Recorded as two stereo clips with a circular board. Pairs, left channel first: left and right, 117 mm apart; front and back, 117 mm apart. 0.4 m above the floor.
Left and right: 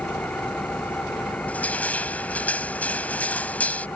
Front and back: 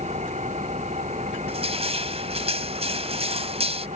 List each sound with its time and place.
0.0 s an engine running: 170° left
1.5 s crushing: 165° left